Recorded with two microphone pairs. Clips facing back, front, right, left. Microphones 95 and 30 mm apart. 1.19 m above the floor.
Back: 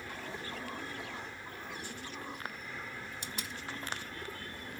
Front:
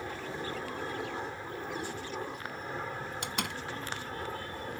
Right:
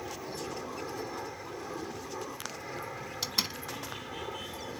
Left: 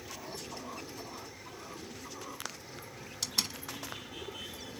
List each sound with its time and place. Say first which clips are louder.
0.0 s an aircraft: front 5 dB, right 5 dB; 55° right; by 4.8 s 45° right
3.2 s a door slam: front 7 dB, right 1 dB; 20° right